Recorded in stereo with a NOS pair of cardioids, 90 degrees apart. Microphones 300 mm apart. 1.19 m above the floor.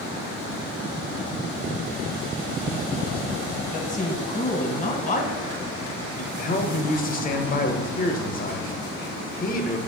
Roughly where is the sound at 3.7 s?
Ahead left.